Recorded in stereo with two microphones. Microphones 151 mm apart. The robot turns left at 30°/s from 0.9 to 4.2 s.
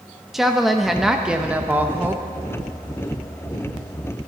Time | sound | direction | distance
0.3 | a woman speaking | centre (ahead or behind) | 0.7 m